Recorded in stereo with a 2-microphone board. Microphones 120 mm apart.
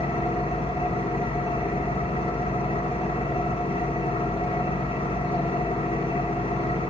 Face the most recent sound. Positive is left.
turn(degrees=50)  # may be behind; listen again after turning